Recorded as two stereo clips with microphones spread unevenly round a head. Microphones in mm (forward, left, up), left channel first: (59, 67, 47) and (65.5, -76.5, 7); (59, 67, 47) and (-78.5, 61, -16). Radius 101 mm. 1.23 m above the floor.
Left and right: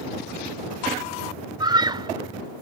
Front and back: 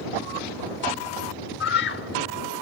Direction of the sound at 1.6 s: 25° right.